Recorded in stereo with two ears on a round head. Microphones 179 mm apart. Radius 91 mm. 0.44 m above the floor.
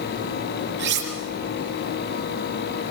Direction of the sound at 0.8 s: 60° right (ahead or behind).